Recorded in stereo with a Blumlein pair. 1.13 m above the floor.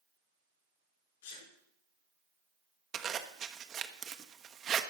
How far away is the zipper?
About 0.8 m.